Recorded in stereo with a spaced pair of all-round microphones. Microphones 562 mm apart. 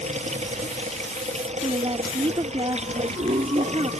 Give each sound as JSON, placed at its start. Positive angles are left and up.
{"t": 0.0, "sound": "running water", "side_deg": -10}
{"t": 1.6, "sound": "a woman speaking", "side_deg": -10}